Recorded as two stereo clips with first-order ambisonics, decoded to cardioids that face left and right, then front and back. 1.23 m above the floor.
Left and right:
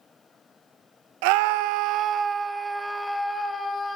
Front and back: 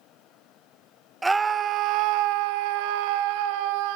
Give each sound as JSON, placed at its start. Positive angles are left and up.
{"t": 1.2, "sound": "a scream", "azimuth_deg": -95, "distance_m": 0.9}